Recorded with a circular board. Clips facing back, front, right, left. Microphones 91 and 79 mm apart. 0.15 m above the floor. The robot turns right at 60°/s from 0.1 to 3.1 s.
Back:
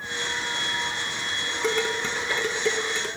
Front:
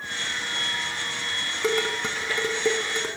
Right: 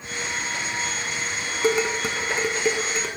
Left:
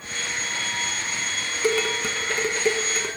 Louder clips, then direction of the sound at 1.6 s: Front 1 dB, right 1 dB; 70° right.